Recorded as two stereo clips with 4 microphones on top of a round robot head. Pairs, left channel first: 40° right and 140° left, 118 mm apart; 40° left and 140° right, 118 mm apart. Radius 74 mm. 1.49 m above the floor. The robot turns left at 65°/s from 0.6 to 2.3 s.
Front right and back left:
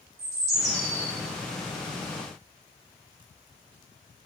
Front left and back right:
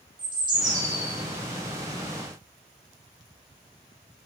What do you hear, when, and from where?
0.2 s a bird: 170° left, 0.7 m; by 1.1 s 135° left, 0.7 m